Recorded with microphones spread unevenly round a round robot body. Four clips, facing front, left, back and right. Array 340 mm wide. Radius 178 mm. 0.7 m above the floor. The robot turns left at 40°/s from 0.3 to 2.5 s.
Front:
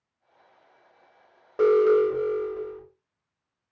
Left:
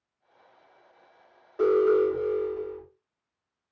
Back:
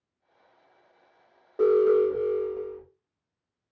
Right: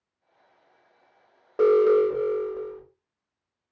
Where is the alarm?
45° right, 4 m; by 2.8 s 85° right, 4 m.